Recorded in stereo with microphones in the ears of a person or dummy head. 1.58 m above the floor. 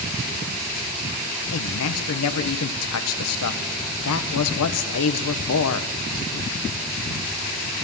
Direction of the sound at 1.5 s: 75° left (ahead or behind).